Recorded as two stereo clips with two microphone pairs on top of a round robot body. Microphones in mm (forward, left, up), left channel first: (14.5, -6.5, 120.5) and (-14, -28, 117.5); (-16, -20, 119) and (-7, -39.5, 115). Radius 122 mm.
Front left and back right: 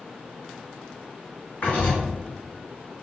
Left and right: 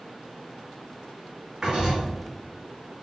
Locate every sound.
1.6 s writing: straight ahead, 2 m